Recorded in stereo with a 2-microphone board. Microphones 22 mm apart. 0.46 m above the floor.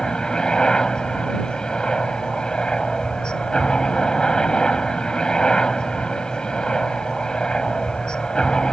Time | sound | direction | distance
0.0 | a helicopter | 40° left (ahead or behind) | ?